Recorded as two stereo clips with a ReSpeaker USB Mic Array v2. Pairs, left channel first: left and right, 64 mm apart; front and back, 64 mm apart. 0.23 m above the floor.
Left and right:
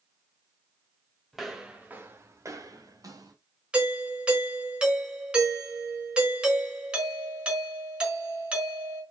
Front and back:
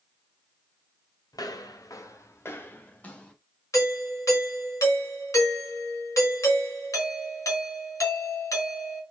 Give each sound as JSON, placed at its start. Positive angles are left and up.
{"t": 1.3, "sound": "footsteps", "azimuth_deg": 0, "distance_m": 2.0}
{"t": 3.7, "sound": "a doorbell", "azimuth_deg": -20, "distance_m": 4.0}